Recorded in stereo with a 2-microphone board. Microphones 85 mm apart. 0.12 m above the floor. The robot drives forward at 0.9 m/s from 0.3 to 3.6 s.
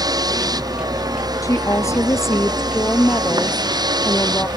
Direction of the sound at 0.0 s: 50° right (ahead or behind).